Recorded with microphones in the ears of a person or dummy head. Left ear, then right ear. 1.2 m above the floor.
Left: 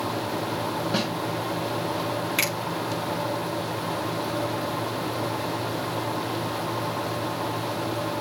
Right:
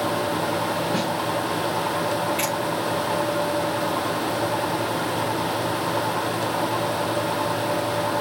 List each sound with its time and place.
0.9 s a snare drum: 20° left (ahead or behind), 4.5 m
2.4 s a finger snap: 40° left (ahead or behind), 4 m